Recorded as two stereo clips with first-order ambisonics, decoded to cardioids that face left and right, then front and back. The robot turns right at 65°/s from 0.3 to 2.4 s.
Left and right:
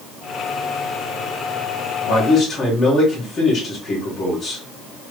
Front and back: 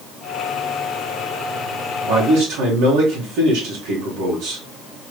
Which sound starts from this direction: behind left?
A man speaking, at 2.0 s.